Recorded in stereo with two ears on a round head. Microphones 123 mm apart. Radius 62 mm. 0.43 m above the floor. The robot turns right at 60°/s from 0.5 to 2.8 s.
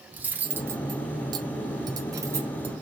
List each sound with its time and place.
0.1 s cutlery clinking: 15° right (ahead or behind), 0.5 m; by 2.7 s 10° right (ahead or behind), 0.5 m